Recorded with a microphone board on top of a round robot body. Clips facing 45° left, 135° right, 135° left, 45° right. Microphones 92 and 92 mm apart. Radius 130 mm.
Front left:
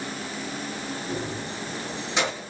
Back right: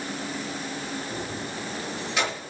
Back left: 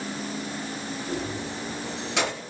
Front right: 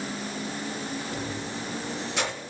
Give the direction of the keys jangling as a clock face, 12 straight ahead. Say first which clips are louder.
Front left 2 dB, back left 2 dB; 8 o'clock.